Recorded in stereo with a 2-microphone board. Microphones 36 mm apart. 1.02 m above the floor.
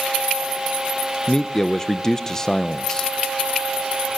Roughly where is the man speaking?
Centre.